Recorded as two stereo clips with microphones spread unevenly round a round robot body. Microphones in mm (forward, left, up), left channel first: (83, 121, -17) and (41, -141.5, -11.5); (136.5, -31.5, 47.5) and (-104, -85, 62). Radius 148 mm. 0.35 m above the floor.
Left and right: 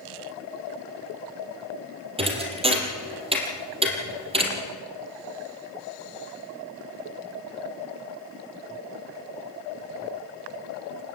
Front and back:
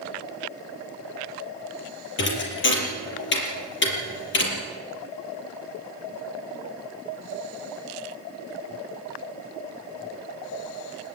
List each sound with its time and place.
2.2 s a thud: 30° right, 5 m